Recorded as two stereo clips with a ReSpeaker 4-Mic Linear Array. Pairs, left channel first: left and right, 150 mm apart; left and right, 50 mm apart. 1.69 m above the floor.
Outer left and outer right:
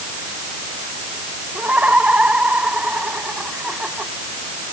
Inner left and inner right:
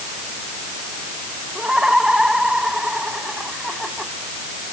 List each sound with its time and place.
1.6 s laughter: 10° right (ahead or behind); by 4.1 s 5° right (ahead or behind)